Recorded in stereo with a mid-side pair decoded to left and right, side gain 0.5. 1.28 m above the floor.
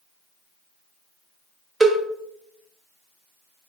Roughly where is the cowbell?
Ahead right.